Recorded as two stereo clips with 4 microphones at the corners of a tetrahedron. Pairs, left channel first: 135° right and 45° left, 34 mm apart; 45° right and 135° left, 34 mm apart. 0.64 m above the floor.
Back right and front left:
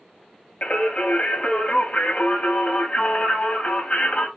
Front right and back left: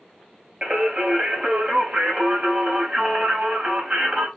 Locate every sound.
0.6 s singing: 170° right, 0.8 m